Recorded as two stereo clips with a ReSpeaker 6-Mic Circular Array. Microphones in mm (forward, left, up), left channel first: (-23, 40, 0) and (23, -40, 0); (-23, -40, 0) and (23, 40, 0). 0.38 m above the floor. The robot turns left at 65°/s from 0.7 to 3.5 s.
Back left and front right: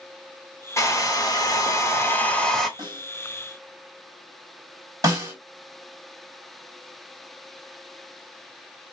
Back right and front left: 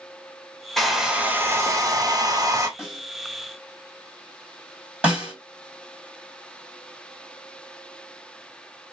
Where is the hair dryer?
155° left, 0.6 m; by 2.7 s 30° left, 0.6 m.